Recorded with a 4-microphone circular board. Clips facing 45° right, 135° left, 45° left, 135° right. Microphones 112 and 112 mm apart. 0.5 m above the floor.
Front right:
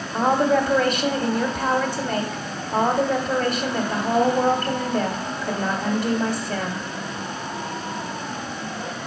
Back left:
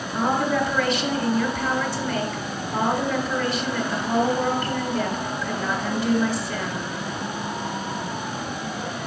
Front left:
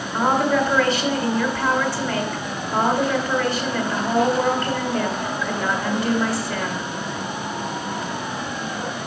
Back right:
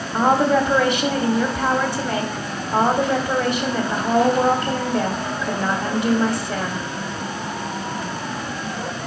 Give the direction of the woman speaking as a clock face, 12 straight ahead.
2 o'clock.